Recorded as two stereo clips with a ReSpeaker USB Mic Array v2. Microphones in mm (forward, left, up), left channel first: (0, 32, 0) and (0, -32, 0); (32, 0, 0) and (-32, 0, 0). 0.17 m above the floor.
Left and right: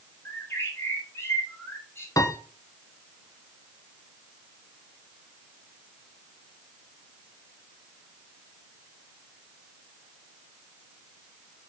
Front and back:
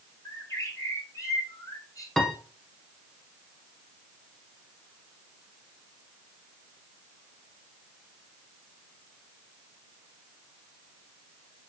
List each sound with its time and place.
0.2 s a bird: 35° left, 2.5 m
2.2 s a piano: 85° left, 1.4 m